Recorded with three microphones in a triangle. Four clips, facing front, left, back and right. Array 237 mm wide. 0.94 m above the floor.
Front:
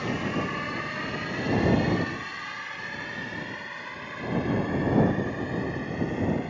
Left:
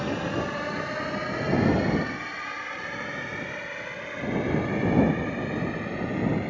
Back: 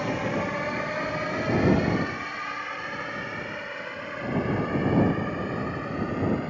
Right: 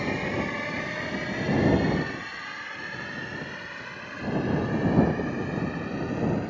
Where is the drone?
170° left; by 6.5 s 140° left.